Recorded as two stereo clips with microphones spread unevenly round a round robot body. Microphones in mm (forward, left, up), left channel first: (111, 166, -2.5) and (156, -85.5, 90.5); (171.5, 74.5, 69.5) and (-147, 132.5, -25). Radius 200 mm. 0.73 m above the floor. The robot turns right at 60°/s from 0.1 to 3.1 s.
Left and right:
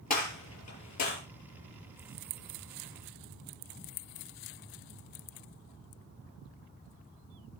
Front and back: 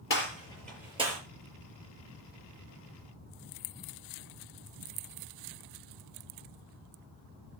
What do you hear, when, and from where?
0.1 s a gunshot: 40° left, 6.5 m; by 1.2 s 105° left, 6.5 m